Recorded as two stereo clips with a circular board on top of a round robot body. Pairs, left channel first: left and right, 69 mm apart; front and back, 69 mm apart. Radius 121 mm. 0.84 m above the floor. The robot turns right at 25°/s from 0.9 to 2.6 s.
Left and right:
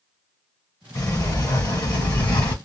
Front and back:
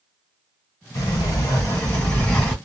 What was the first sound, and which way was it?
A sliding door, 45° left.